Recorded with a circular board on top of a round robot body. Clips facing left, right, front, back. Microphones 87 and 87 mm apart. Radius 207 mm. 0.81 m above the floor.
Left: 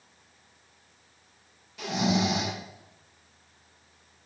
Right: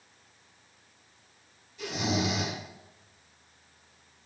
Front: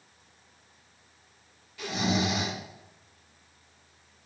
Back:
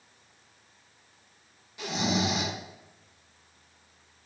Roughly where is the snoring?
Left.